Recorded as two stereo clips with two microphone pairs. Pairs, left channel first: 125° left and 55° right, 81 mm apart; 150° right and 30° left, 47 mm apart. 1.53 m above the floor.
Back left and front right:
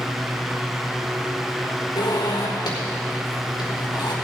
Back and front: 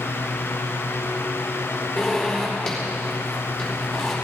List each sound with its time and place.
2.0 s a zipper: 125° left, 4 m